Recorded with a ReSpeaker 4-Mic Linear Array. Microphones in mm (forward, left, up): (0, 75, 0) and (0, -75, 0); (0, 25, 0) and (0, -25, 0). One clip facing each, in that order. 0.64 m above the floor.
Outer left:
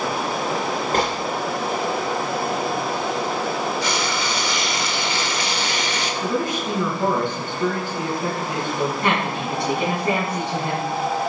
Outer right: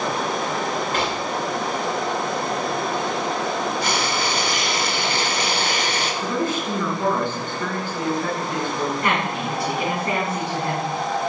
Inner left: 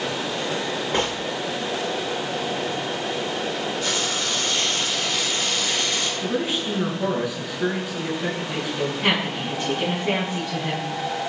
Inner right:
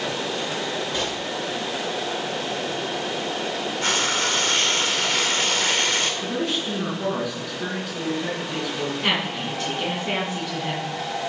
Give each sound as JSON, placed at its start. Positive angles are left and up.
{"t": 0.9, "sound": "a gunshot", "side_deg": 45, "distance_m": 2.5}
{"t": 3.8, "sound": "frying", "side_deg": -55, "distance_m": 2.0}
{"t": 6.2, "sound": "a man speaking", "side_deg": 15, "distance_m": 7.0}
{"t": 9.0, "sound": "a woman speaking", "side_deg": 25, "distance_m": 7.0}